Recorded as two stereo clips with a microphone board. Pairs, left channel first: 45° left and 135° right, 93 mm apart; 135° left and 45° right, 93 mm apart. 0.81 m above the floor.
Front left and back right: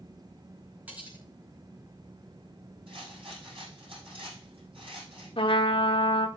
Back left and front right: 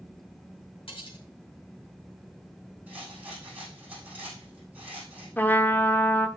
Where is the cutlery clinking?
150° left, 4.5 m.